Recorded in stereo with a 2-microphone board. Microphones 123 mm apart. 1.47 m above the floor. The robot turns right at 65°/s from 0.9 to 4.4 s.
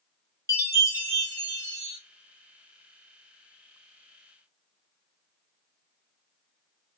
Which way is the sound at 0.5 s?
65° left.